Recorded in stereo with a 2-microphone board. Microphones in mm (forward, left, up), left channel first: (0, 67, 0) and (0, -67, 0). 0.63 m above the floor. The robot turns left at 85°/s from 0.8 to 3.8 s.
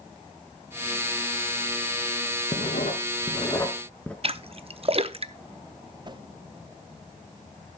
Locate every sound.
2.5 s writing: 55° left (ahead or behind), 1.2 m; by 4.1 s 10° left (ahead or behind), 1.2 m
4.2 s a splash: 50° right (ahead or behind), 0.6 m
6.0 s a whoosh: 35° right (ahead or behind), 0.6 m